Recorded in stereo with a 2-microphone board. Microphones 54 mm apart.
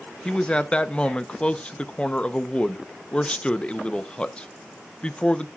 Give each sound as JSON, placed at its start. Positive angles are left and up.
{"t": 0.2, "sound": "a man speaking", "side_deg": 20, "distance_m": 0.8}